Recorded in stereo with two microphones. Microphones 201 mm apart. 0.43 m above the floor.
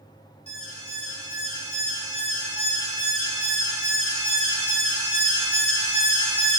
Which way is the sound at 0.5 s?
30° right (ahead or behind).